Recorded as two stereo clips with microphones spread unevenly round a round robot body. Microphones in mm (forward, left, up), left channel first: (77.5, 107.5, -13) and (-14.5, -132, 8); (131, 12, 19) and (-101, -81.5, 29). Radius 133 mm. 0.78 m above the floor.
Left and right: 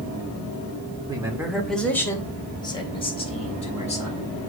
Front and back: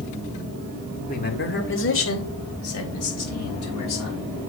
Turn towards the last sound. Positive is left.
turn(degrees=5)